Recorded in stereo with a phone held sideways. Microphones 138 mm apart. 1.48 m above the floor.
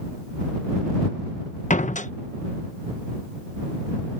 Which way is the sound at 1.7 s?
65° left (ahead or behind).